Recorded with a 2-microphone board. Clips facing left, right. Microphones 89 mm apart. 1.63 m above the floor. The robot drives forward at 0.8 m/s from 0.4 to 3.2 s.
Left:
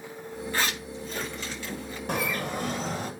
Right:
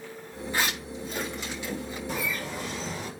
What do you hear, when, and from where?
0.5 s a zipper: 10° right (ahead or behind), 4.5 m; by 2.0 s 15° right (ahead or behind), 3 m
2.1 s a bird: 60° left (ahead or behind), 1.7 m; by 3.1 s 40° left (ahead or behind), 2.5 m